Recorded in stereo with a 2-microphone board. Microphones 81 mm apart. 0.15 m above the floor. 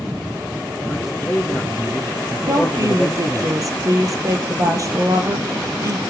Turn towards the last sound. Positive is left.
turn(degrees=-40)  # may be behind; listen again after turning